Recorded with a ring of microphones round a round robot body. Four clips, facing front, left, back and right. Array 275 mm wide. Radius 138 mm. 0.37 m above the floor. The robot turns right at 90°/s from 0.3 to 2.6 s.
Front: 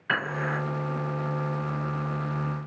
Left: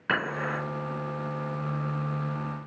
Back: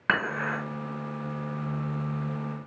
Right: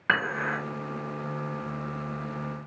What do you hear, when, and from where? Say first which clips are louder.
0.1 s dishes clattering: right 2 dB, back 1 dB; 165° right, 2.5 m; by 0.6 s 140° right, 2.5 m